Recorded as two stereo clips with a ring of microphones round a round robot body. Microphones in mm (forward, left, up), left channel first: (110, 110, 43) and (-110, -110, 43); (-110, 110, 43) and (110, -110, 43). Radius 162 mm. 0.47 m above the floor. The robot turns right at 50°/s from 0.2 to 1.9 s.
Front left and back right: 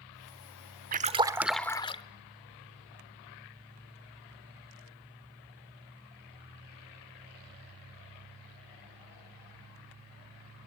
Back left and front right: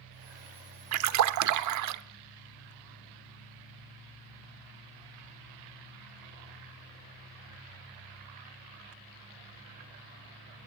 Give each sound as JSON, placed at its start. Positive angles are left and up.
{"t": 0.9, "sound": "a splash", "azimuth_deg": -75, "distance_m": 0.9}